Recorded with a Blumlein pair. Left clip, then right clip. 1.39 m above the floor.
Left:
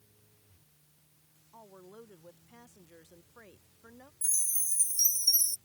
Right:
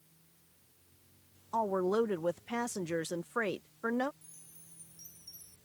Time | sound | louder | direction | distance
1.5 | a woman speaking | right 22 dB | 40° right | ?
4.2 | a chime | left 25 dB | 45° left | ?